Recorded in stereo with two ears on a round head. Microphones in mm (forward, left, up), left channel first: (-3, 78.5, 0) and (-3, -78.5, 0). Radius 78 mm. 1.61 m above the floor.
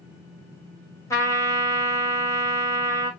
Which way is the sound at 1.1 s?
20° left (ahead or behind).